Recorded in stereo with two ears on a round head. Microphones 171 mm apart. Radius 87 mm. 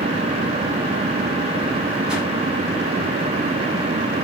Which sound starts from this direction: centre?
A whoosh, at 2.1 s.